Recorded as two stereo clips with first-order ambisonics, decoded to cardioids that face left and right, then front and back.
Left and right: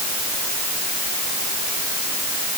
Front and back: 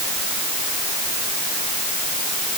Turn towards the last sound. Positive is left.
No sound to turn to.